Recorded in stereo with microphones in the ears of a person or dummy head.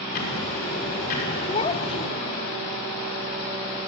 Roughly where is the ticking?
Left.